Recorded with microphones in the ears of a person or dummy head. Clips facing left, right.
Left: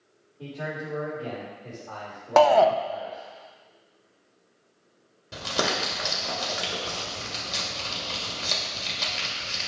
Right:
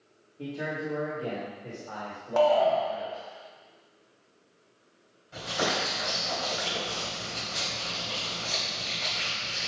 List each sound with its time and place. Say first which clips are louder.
0.4 s a man speaking: right 1 dB; 25° right (ahead or behind), 3 m; by 3.2 s centre (ahead or behind), 4 m
2.4 s a shout: left 4 dB; 75° left (ahead or behind), 0.7 m
5.3 s crumpling: left 2 dB; 80° left, 2.5 m